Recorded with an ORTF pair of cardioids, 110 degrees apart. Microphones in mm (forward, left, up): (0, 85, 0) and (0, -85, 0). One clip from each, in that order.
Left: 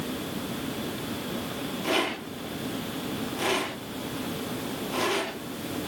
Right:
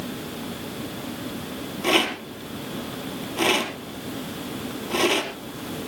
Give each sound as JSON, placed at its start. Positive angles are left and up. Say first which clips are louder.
{"t": 1.8, "sound": "a rattle", "louder": "right 6 dB", "azimuth_deg": -50, "distance_m": 4.5}